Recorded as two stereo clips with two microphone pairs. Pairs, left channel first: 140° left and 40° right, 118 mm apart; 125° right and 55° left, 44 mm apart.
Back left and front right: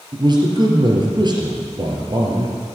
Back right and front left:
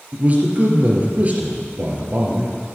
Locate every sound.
0.1 s a man speaking: 5° left, 3.5 m